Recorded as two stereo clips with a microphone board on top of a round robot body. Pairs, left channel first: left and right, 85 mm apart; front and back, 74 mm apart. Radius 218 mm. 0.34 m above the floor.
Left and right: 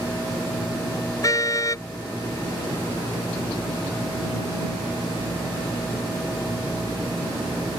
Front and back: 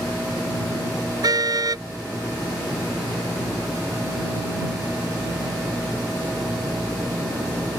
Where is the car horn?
145° left.